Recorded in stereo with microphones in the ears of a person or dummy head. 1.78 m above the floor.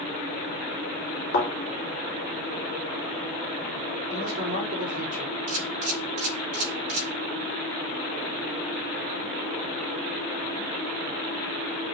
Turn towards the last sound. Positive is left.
turn(degrees=-40)  # may be behind; listen again after turning